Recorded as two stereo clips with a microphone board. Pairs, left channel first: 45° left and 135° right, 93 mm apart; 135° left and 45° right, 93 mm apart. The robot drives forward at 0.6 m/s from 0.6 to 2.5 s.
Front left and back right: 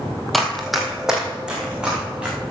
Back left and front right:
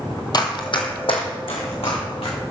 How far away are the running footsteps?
About 1.3 m.